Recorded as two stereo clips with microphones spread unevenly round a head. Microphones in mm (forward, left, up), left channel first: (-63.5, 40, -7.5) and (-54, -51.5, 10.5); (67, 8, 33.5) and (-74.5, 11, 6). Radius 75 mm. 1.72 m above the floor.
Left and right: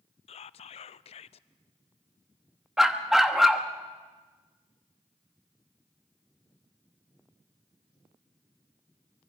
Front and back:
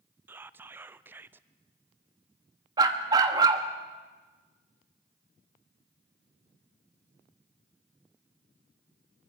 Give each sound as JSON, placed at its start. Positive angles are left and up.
{"t": 0.3, "sound": "whispering", "azimuth_deg": 100, "distance_m": 0.5}
{"t": 2.8, "sound": "a dog barking", "azimuth_deg": -125, "distance_m": 1.1}